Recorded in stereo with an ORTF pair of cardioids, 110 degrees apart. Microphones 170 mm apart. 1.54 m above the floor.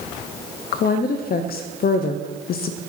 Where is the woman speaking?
60° left, 0.7 m.